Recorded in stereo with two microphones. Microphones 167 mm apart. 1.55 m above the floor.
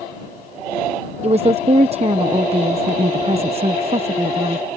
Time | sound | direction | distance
1.2 | a woman speaking | 40° right (ahead or behind) | ?